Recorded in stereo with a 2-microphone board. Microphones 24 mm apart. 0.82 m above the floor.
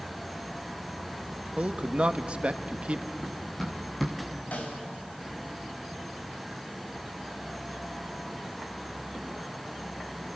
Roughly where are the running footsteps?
Centre.